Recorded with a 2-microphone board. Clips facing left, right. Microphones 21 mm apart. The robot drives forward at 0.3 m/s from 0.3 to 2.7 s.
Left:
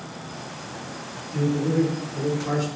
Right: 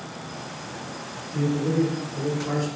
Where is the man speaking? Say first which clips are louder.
Left 1 dB; 35° left (ahead or behind), 1.3 m; by 2.7 s 30° left (ahead or behind), 1.4 m.